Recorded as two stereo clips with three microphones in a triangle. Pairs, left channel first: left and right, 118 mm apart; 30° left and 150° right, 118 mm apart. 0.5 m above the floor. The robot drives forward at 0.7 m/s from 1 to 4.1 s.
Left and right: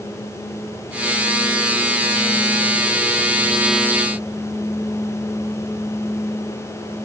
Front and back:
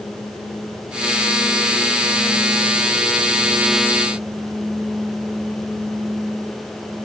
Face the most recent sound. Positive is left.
No sound to turn to.